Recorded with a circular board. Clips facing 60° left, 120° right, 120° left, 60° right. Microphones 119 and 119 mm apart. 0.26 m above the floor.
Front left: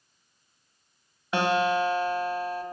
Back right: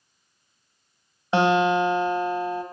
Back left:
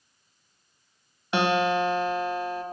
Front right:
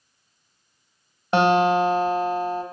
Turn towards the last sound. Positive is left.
turn(degrees=-70)